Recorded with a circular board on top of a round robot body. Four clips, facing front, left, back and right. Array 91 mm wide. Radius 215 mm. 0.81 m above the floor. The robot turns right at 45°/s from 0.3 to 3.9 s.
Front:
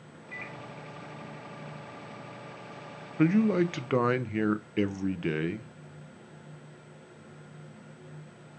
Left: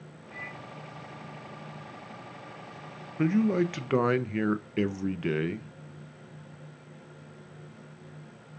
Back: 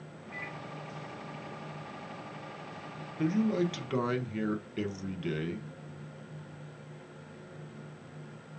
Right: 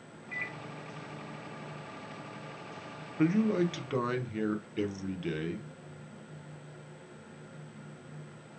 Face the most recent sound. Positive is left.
turn(degrees=45)